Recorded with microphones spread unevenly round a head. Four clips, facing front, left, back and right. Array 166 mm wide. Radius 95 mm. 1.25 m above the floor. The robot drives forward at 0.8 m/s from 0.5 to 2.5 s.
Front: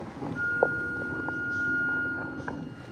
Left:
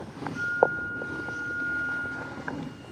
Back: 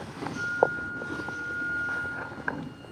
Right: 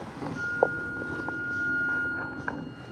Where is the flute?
45° left; by 2.9 s 50° left.